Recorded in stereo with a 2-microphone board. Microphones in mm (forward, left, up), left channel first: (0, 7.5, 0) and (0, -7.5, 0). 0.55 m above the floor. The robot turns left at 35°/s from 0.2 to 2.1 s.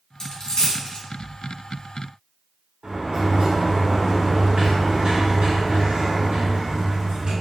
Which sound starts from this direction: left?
A dropped coin, at 0.2 s.